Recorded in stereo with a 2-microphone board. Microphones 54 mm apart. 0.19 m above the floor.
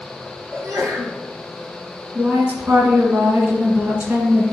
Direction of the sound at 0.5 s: 65° right (ahead or behind).